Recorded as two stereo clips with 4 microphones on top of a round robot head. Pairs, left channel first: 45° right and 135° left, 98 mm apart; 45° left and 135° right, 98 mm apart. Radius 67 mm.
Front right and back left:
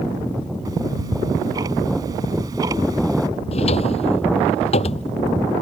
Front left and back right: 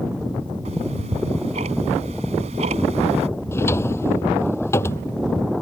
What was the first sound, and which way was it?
Ticking, 165° right.